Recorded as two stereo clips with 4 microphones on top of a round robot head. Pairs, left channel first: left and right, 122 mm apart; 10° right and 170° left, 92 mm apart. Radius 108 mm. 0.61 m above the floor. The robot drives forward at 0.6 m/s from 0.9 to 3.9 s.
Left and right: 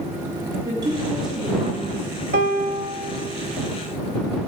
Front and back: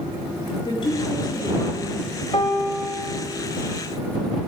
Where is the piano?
65° right, 0.5 m; by 3.1 s 125° right, 0.6 m.